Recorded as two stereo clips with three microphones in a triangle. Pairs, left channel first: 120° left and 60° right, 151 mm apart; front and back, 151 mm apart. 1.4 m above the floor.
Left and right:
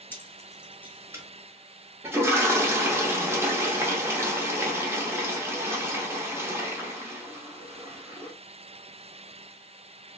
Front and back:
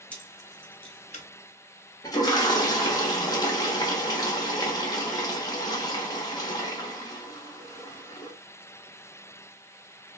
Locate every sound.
0.1 s keys jangling: 70° left, 0.6 m; by 1.2 s 5° left, 0.9 m
2.0 s a toilet flushing: 15° right, 0.8 m